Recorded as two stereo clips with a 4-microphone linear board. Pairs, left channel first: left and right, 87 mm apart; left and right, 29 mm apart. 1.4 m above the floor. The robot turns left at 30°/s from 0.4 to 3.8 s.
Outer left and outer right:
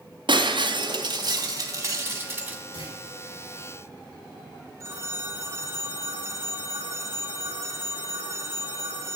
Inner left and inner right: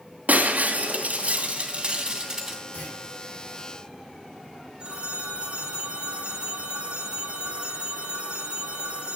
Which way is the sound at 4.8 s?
35° right (ahead or behind).